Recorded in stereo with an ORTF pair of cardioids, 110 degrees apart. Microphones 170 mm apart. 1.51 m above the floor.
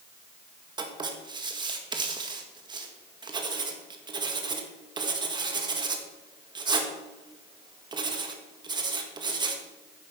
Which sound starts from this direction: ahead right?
Writing, at 0.8 s.